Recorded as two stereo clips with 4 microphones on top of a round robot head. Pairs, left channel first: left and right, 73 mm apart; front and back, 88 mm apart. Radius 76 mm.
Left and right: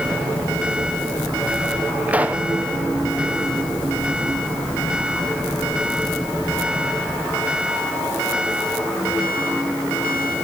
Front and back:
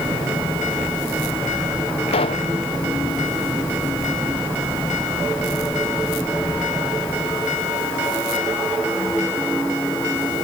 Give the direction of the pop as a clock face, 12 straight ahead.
1 o'clock.